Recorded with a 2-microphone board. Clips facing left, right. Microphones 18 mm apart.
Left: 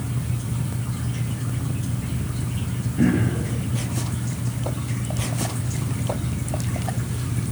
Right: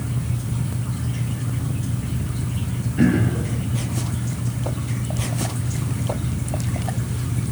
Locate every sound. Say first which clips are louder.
3.0 s throat clearing: right 2 dB; 80° right, 8.5 m